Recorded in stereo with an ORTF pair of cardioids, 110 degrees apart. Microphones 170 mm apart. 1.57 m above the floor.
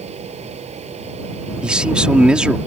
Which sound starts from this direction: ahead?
A man speaking, at 1.6 s.